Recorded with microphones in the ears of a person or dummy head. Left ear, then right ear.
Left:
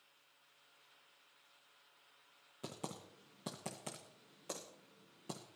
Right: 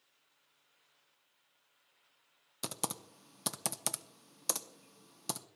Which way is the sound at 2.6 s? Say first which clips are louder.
Right 7 dB; 55° right (ahead or behind).